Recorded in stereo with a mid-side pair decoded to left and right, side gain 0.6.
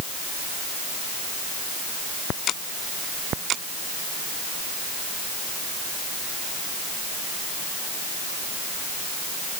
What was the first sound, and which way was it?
Only background noise.